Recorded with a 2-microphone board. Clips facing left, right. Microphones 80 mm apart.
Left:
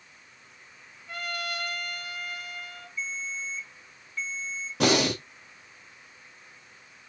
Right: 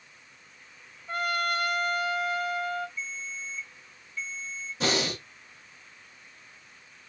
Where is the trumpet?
35° right (ahead or behind), 0.9 m.